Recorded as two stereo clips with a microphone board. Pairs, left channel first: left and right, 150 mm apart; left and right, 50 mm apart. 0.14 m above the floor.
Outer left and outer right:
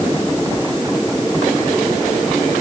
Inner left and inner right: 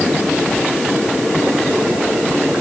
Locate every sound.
Only background noise.